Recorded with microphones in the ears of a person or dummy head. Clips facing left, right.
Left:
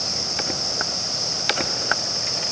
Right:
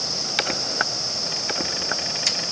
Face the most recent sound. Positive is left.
No sound to turn to.